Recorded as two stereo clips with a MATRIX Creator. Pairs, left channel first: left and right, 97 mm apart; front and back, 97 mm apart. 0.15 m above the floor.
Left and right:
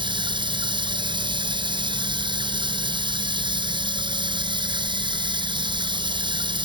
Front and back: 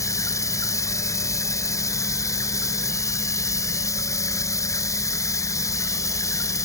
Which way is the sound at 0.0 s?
55° right.